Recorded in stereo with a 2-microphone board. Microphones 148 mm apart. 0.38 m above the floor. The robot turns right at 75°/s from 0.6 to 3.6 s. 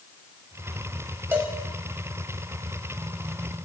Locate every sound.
1.3 s a cowbell: 15° right (ahead or behind), 0.9 m; by 1.5 s centre (ahead or behind), 0.9 m